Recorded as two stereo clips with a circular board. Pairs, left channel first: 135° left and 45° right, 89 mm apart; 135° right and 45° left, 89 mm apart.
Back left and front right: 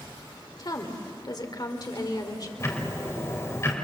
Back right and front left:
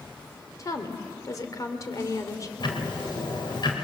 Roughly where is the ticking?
Behind.